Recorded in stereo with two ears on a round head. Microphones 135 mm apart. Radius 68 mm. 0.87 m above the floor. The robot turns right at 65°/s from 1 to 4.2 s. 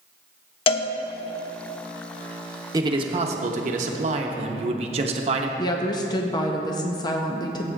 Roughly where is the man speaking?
Behind right.